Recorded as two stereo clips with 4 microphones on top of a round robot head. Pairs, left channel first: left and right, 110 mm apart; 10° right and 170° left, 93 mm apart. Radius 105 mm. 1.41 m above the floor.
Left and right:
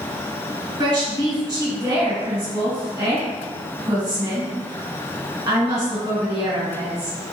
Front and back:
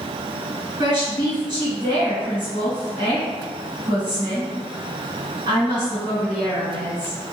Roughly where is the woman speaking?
Behind right.